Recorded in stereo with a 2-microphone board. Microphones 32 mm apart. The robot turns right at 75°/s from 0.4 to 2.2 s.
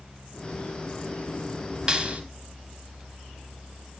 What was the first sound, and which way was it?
A clap, 25° right (ahead or behind).